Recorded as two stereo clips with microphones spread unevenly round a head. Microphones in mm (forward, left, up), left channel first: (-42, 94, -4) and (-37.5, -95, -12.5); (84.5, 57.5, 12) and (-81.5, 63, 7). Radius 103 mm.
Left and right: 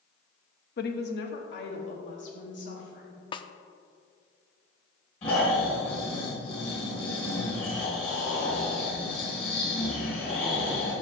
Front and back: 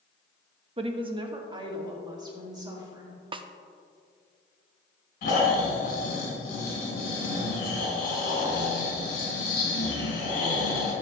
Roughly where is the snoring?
Ahead left.